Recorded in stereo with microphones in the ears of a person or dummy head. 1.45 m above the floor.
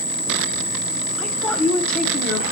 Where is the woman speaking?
5° left (ahead or behind), 1.1 m.